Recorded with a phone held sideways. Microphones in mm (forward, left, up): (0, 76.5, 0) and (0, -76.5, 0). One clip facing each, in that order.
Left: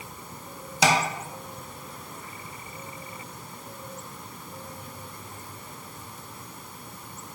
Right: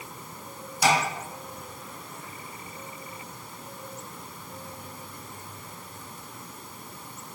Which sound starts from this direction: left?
Tapping, at 0.8 s.